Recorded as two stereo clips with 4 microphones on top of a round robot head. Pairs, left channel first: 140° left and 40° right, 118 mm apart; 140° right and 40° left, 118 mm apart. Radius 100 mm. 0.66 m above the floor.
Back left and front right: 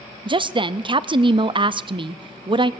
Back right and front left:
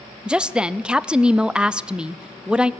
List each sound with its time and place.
0.2 s a woman speaking: 40° right, 0.6 m